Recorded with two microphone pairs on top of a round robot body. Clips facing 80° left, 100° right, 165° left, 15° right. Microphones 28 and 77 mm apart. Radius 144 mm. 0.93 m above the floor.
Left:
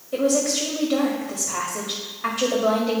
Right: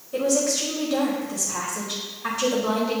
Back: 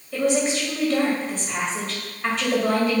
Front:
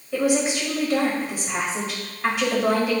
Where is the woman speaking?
65° left, 1.8 m.